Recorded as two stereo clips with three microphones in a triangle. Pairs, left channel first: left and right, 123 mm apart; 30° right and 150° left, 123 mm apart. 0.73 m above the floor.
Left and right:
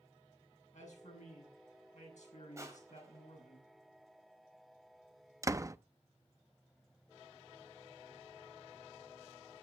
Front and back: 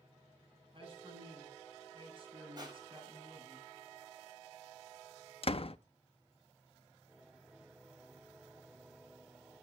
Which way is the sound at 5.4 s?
30° right.